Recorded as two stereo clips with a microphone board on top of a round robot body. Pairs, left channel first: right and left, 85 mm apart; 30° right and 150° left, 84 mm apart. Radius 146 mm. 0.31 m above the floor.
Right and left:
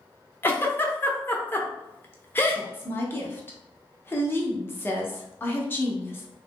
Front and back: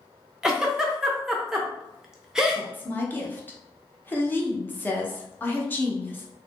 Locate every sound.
0.4 s a giggle: 135° right, 0.8 m
2.5 s a woman speaking: 65° right, 1.0 m